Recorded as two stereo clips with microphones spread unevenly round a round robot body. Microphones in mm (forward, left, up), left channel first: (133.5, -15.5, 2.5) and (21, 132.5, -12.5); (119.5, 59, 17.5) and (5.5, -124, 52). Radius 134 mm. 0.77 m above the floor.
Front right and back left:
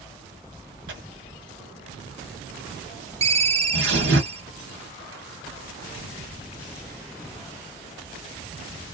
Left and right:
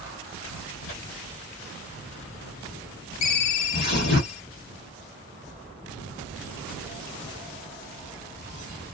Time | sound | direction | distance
0.9 | tearing paper | 115° left | 1.1 m
3.2 | a ringtone | 65° left | 0.5 m